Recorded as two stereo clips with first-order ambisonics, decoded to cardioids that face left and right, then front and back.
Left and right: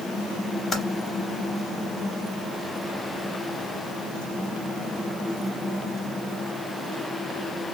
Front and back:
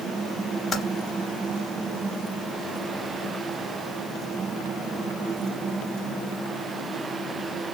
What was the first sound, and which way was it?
Typing on a keyboard, 60° left.